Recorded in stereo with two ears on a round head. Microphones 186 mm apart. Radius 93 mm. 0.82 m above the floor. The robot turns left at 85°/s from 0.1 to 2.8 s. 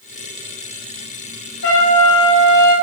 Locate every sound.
1.6 s a trumpet: 120° left, 5.5 m; by 2.7 s 25° left, 5.5 m